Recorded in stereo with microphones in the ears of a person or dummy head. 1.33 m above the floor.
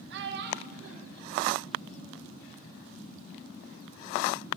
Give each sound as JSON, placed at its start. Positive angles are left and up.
{"t": 0.1, "sound": "a child speaking", "side_deg": -65, "distance_m": 2.5}